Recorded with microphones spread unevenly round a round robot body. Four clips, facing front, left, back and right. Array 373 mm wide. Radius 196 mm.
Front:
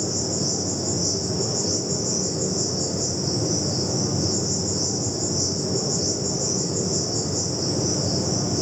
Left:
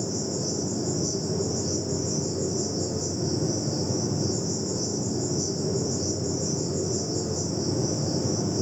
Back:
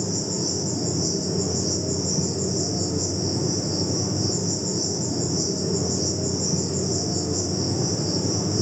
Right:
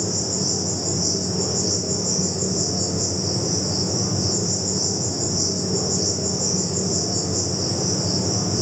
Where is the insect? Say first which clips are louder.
Right 2 dB, front 1 dB; 175° right, 1.6 m.